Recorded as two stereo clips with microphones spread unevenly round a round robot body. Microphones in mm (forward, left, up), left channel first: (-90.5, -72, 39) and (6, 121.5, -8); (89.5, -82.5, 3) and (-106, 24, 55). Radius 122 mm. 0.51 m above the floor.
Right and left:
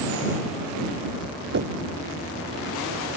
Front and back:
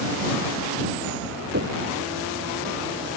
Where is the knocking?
100° left.